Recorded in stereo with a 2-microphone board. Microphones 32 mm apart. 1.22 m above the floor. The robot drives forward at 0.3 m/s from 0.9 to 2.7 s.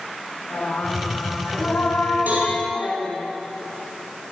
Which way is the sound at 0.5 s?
75° left (ahead or behind).